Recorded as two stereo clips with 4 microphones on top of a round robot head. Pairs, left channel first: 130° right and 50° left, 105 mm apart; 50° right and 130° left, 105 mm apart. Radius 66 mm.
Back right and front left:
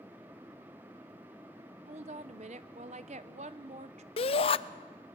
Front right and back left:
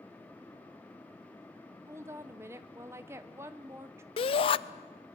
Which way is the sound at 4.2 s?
90° right.